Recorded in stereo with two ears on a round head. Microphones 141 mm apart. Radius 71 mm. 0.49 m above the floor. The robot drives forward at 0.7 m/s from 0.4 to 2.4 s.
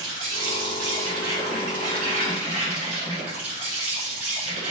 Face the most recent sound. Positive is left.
turn(degrees=-50)  # may be behind; listen again after turning